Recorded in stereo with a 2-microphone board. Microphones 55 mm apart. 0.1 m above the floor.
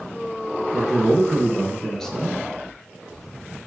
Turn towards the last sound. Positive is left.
turn(degrees=15)  # may be behind; listen again after turning